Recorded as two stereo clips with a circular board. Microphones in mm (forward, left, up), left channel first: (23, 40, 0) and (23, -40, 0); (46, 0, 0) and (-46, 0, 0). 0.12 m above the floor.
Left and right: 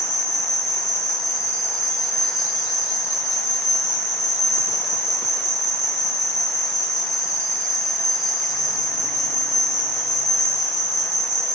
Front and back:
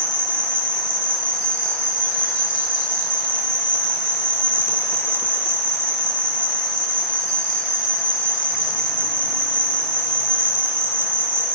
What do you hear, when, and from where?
0.0 s an insect: straight ahead, 2 m